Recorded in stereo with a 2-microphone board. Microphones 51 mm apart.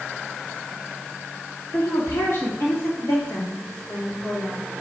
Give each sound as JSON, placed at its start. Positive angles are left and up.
{"t": 1.7, "sound": "a woman speaking", "side_deg": 65, "distance_m": 2.5}